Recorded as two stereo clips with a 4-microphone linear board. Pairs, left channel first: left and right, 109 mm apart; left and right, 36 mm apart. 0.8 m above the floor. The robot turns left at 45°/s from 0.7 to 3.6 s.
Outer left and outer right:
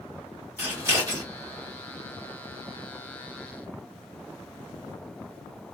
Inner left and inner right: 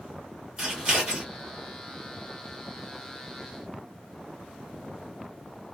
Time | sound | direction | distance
0.6 | scissors | 20° right (ahead or behind) | 1.5 m